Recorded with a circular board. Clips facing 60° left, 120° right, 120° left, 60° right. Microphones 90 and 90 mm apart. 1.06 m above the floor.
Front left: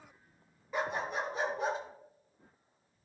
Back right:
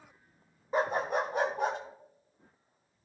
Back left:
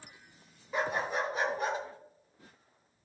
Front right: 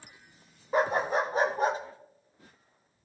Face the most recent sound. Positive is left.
turn(degrees=-110)